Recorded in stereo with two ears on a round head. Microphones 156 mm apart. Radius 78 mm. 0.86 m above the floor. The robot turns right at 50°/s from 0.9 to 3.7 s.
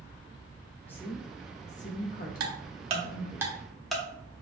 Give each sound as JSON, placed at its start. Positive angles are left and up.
{"t": 0.9, "sound": "a woman speaking", "side_deg": 10, "distance_m": 0.8}
{"t": 2.4, "sound": "ticking", "side_deg": -60, "distance_m": 0.8}